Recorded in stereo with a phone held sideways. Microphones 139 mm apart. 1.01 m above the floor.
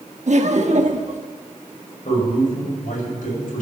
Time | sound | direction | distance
0.3 | laughter | 60° right (ahead or behind) | 1.2 m
2.0 | a man speaking | 75° left (ahead or behind) | 5.5 m